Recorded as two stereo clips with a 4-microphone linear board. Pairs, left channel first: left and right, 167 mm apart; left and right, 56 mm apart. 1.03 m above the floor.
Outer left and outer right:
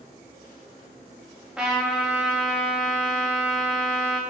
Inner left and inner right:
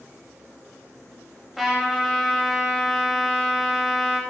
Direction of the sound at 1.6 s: 5° right (ahead or behind).